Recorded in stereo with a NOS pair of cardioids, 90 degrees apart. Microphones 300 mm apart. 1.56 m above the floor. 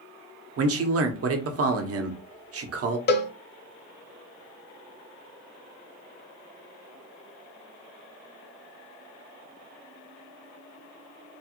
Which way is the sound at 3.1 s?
35° left.